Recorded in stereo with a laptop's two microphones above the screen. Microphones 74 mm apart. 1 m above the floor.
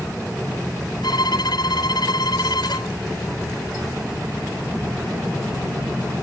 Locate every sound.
1.0 s a violin: 80° left